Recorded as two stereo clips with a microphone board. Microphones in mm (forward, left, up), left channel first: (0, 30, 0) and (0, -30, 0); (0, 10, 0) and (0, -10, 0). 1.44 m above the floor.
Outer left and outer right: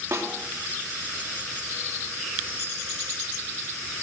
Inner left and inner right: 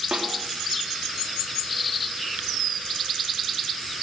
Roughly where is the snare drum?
Right.